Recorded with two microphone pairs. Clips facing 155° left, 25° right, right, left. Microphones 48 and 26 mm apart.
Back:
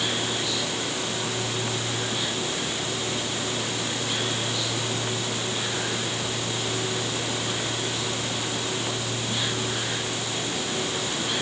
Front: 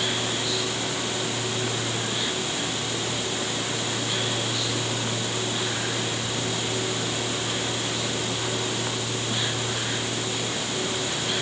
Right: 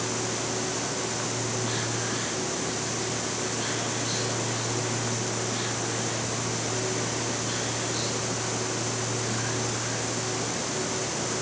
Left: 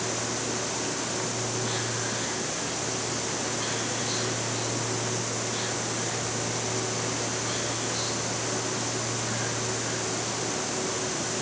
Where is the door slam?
No door slam in this recording.